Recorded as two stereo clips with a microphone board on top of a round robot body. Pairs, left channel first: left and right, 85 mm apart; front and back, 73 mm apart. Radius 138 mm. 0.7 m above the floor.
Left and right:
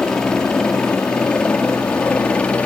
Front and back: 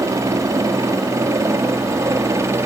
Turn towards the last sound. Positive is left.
turn(degrees=160)